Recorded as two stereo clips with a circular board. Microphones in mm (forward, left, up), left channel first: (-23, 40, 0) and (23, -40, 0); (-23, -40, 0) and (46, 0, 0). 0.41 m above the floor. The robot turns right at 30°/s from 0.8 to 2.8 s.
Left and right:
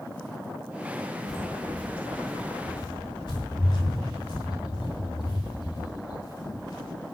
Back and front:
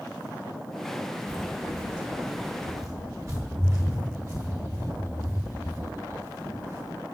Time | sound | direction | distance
1.3 | footsteps | 35° left | 3 m